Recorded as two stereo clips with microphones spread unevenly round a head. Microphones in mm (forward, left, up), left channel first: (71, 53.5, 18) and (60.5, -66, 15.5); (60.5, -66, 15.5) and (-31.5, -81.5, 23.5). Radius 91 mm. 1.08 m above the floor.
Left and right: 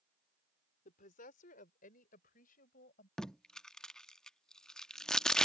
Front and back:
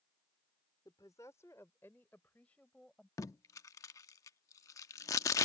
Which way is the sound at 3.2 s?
10° left.